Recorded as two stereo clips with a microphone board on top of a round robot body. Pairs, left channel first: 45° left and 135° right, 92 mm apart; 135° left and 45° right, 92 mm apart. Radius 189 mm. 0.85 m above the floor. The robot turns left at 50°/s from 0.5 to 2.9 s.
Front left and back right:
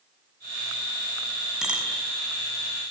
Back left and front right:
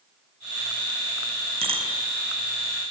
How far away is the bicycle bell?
About 5.5 m.